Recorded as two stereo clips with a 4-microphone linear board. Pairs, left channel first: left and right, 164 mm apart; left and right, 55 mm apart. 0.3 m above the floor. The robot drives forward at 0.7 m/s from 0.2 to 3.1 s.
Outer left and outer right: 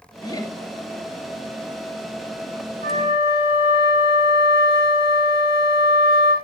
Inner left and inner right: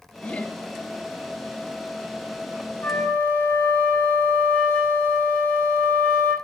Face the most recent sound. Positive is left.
turn(degrees=35)  # may be behind; listen again after turning